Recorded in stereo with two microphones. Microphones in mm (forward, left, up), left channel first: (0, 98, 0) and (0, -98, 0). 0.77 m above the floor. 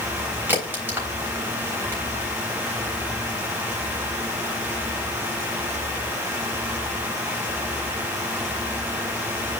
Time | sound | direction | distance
0.5 | a crack | 10° right (ahead or behind) | 3.5 m